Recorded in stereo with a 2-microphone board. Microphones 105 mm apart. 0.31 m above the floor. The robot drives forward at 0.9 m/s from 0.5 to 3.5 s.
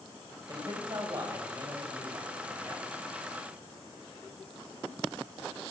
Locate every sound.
0.5 s a man speaking: 40° right (ahead or behind), 2.0 m; by 2.9 s 25° right (ahead or behind), 3 m